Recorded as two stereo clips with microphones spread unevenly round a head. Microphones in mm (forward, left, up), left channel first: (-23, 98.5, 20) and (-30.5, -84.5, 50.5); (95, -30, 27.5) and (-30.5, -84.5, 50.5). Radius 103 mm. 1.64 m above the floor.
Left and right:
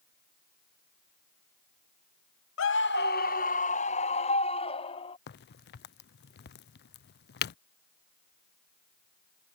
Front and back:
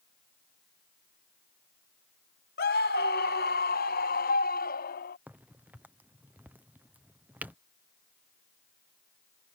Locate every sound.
2.6 s a scream: 60° left; by 5.2 s 20° left
5.3 s a crack: 125° left